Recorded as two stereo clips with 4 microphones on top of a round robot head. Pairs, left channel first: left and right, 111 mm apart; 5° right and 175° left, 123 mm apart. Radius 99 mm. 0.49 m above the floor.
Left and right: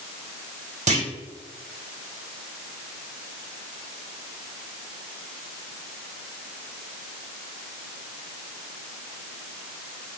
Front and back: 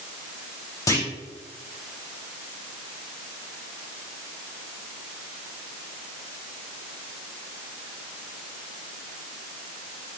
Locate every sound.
0.9 s a clunk: 70° right, 2.5 m